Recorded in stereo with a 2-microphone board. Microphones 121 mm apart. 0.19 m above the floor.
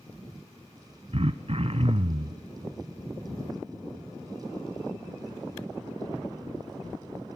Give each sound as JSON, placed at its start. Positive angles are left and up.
{"t": 1.1, "sound": "throat clearing", "side_deg": -55, "distance_m": 0.8}